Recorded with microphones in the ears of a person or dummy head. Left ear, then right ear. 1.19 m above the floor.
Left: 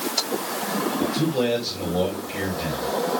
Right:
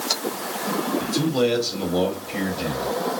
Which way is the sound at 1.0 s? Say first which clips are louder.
Right 2 dB; 75° right (ahead or behind).